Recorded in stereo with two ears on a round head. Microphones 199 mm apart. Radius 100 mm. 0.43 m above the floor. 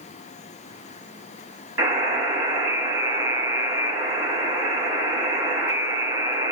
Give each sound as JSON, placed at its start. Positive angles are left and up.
{"t": 1.8, "sound": "a buzzer", "side_deg": -10, "distance_m": 2.5}